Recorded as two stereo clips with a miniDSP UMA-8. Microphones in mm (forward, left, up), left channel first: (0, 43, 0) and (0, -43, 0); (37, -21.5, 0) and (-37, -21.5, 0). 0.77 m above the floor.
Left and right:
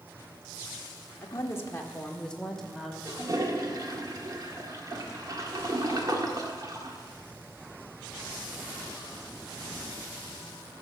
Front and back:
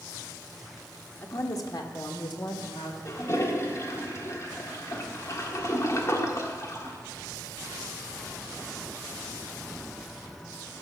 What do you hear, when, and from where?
1.2 s a woman speaking: 45° left, 1.4 m; by 3.0 s straight ahead, 2.5 m
3.0 s a toilet flushing: 45° right, 1.4 m